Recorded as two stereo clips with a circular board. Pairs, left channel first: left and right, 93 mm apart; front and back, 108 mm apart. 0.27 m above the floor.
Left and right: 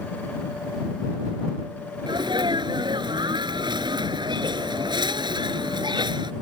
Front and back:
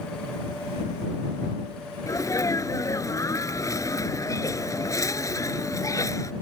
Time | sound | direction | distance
2.1 | a sneeze | 60° right | ?